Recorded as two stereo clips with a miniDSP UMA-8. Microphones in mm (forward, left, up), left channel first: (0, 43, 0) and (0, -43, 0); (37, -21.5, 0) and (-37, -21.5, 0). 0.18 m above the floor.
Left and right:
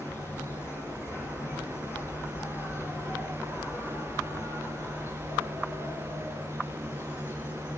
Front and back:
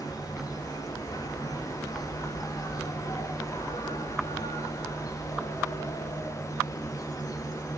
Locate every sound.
0.0 s an insect: 30° left, 6 m